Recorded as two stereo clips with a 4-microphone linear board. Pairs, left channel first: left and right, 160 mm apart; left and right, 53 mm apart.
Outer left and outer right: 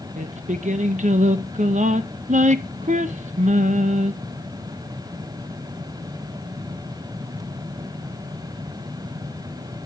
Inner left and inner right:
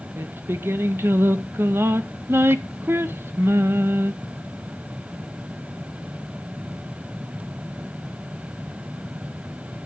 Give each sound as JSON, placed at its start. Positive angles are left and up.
{"t": 0.2, "sound": "singing", "side_deg": -45, "distance_m": 0.6}